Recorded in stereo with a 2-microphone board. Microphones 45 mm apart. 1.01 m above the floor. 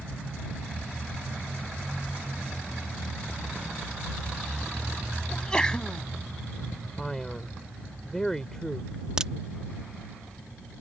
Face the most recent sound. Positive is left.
turn(degrees=-15)  # may be behind; listen again after turning